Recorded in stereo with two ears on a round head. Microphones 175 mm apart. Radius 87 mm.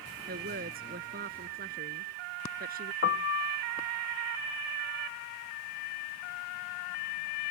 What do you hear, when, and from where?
0.3 s a woman speaking: 50° right (ahead or behind)
3.0 s a piano: 50° left (ahead or behind)